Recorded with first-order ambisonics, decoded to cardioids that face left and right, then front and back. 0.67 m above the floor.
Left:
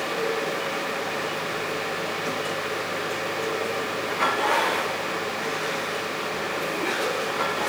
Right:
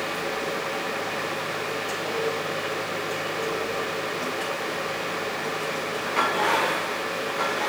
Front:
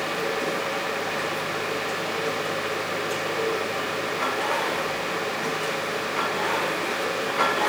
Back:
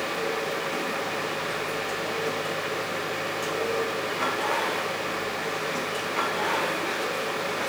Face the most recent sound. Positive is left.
No sound to turn to.